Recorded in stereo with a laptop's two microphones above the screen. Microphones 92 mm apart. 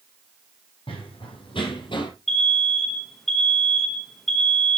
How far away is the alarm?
About 0.8 m.